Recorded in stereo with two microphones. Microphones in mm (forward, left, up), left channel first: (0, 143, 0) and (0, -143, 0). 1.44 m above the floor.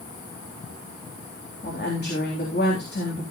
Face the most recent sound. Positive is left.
turn(degrees=35)  # may be behind; listen again after turning